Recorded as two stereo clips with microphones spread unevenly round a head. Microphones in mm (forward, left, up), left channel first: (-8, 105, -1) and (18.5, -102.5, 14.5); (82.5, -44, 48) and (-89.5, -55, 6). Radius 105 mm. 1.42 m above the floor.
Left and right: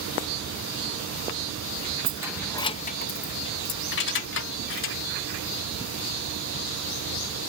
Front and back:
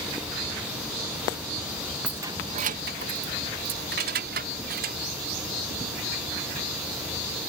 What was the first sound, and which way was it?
Keys jangling, 70° right.